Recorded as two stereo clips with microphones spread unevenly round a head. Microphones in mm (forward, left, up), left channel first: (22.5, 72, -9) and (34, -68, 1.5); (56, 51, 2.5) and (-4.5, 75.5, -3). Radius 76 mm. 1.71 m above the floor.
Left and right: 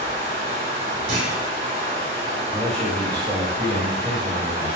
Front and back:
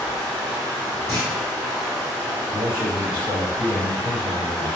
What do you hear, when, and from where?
0.0 s running water: 110° right, 1.7 m
1.1 s a clunk: 115° right, 2.5 m
2.5 s a man speaking: 175° right, 1.5 m